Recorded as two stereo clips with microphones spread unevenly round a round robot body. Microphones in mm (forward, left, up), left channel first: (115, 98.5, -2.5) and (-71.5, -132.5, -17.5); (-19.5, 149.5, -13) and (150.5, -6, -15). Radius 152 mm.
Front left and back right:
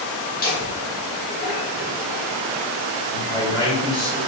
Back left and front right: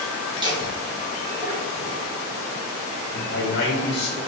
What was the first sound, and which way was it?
Laughter, 15° left.